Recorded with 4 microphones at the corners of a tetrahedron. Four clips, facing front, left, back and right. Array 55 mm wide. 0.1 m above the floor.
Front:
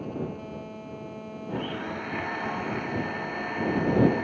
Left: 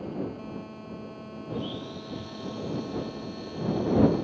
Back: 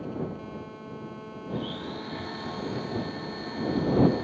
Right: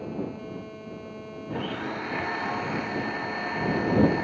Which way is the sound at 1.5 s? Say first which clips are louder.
Right 4 dB, front 2 dB; 60° right.